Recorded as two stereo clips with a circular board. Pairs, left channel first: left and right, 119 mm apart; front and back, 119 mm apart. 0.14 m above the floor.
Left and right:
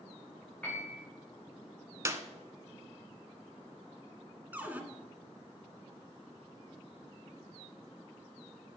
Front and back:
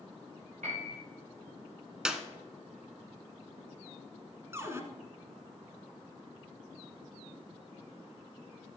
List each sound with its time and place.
0.6 s a piano: 170° left, 5 m
2.0 s a clap: 105° right, 0.8 m
4.5 s a cupboard door: 150° right, 1.1 m